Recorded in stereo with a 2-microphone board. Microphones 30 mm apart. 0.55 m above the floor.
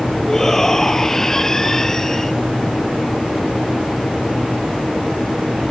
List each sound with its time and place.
0.3 s a shout: 20° left (ahead or behind)